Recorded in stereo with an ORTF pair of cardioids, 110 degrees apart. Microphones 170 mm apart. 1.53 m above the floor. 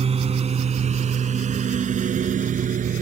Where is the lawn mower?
40° right; by 3.0 s 50° right.